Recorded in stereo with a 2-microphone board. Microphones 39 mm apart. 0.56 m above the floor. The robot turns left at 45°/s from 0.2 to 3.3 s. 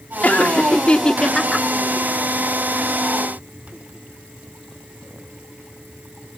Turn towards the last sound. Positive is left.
turn(degrees=-65)